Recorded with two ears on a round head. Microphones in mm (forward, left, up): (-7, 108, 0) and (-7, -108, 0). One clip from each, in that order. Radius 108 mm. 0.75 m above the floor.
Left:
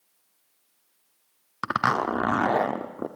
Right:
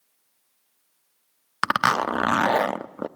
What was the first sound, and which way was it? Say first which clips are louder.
A zipper: right 3 dB; 80° right.